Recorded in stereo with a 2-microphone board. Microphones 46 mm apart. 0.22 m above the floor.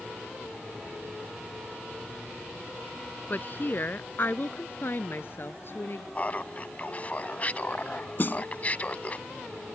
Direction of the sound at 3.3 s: 45° left (ahead or behind).